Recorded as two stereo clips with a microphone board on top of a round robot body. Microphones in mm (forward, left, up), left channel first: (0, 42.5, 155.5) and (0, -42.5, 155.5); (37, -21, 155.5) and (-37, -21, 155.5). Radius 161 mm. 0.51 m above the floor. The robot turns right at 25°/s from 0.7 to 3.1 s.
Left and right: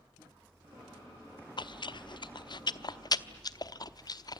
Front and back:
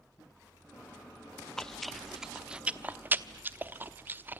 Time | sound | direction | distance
1.6 | chewing | 80° left | 1.0 m